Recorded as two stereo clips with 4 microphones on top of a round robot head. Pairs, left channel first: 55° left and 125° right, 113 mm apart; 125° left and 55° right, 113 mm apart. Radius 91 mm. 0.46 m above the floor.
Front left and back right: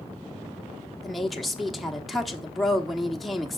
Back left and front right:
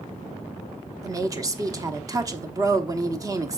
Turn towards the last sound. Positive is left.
turn(degrees=-35)